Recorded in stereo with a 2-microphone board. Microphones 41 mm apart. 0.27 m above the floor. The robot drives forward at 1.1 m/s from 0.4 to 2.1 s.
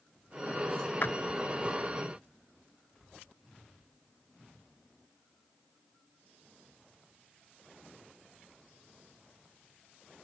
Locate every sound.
1.0 s a clap: 60° left (ahead or behind); by 1.1 s 55° left (ahead or behind)